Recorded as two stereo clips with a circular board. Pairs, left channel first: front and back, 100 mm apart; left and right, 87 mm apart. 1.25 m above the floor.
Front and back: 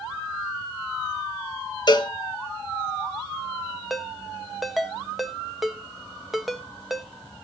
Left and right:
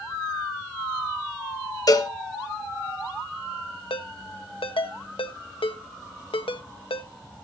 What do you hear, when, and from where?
1.9 s a cowbell: 45° left, 1.0 m
3.9 s a ringtone: 90° left, 1.0 m